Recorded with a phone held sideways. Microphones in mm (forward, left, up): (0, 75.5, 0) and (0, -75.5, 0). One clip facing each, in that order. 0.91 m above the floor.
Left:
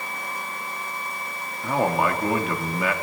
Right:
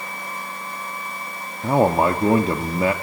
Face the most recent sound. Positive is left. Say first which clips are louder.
# right 5 dB
turn(degrees=-30)  # may be behind; listen again after turning